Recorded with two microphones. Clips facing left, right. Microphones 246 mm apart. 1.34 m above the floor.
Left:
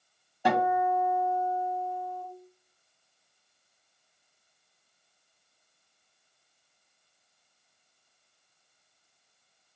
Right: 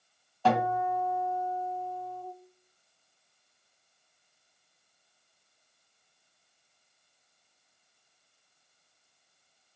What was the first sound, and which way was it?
A guitar, 15° left (ahead or behind).